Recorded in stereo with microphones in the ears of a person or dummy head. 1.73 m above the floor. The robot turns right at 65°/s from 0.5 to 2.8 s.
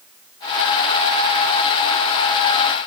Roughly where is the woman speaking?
I don't hear a woman speaking.